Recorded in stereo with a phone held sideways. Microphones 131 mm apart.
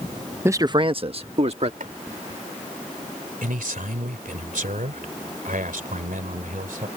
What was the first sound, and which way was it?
A man speaking, 15° right (ahead or behind).